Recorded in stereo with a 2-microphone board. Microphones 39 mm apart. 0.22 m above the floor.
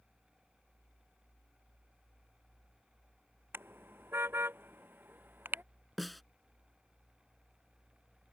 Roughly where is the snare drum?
Centre.